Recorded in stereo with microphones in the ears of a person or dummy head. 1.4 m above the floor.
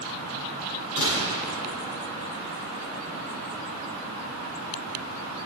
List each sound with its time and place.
1.0 s a gunshot: 70° left (ahead or behind), 7 m